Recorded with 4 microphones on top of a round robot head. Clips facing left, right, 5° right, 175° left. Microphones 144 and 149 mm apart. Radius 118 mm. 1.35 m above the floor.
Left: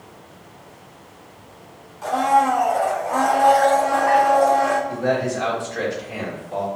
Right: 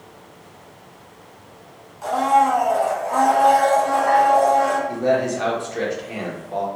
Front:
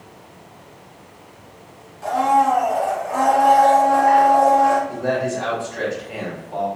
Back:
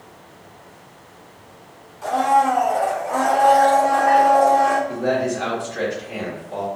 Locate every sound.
2.0 s a blender: 170° right, 1.1 m
4.9 s a man speaking: 160° right, 1.2 m